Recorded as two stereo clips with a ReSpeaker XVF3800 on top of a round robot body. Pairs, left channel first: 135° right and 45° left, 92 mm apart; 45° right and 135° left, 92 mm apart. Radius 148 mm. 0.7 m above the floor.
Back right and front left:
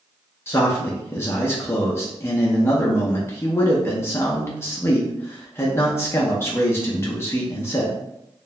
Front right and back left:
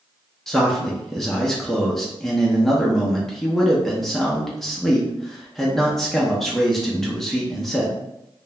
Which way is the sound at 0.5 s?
130° right.